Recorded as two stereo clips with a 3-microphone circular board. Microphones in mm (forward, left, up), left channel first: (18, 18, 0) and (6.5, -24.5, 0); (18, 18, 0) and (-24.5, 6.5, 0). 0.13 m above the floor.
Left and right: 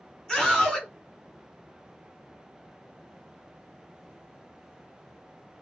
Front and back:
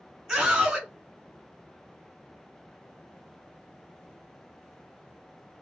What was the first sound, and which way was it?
A scream, 145° left.